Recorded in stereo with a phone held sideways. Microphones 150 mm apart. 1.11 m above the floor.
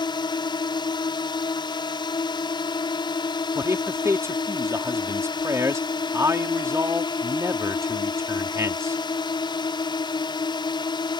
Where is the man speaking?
20° right (ahead or behind).